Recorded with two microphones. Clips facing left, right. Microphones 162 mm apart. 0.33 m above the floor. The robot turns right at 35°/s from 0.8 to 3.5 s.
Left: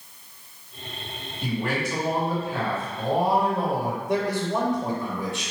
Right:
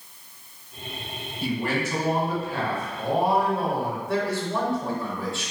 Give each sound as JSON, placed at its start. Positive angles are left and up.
{"t": 1.4, "sound": "a man speaking", "side_deg": -10, "distance_m": 1.5}
{"t": 4.1, "sound": "a man speaking", "side_deg": 20, "distance_m": 0.9}